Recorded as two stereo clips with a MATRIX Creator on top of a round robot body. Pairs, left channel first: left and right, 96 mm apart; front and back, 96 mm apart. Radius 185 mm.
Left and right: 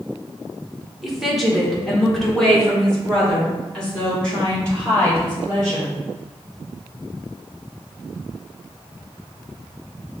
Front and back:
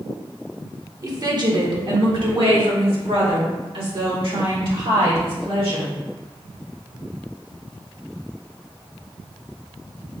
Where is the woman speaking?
175° right, 1.1 m; by 6.0 s 170° left, 3.5 m.